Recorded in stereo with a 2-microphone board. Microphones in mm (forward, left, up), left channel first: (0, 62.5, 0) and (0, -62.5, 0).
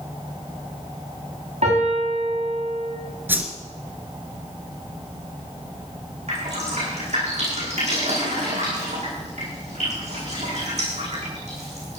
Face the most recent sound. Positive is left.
turn(degrees=-70)  # may be behind; listen again after turning